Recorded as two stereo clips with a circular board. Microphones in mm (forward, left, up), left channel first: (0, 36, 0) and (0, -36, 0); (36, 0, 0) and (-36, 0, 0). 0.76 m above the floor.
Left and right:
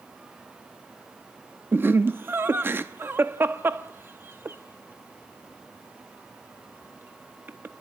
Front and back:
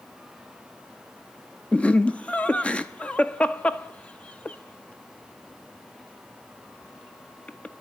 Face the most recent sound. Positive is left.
turn(degrees=-65)